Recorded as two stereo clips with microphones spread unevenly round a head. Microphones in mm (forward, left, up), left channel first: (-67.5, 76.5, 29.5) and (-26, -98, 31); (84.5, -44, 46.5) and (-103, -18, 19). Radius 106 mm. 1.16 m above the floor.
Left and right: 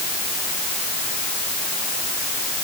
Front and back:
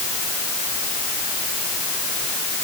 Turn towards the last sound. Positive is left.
No sound to turn to.